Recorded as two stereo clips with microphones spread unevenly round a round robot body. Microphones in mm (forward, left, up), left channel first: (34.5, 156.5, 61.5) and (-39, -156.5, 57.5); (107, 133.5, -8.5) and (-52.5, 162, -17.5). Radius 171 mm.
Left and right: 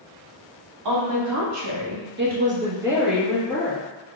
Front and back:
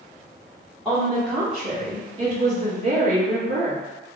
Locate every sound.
0.8 s a woman speaking: 100° right, 1.7 m; by 3.8 s 150° left, 1.6 m